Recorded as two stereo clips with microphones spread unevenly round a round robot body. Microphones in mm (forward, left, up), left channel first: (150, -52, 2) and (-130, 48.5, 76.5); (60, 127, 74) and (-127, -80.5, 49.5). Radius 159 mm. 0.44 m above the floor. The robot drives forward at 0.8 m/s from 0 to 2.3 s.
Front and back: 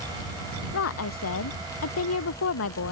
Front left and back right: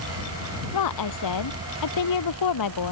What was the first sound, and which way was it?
A woman speaking, 20° left.